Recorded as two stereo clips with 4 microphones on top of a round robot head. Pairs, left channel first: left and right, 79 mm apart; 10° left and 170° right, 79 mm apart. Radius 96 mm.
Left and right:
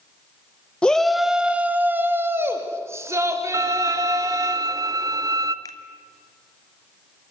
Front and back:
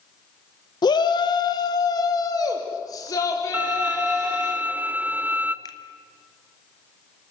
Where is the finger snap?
50° left, 1.7 m.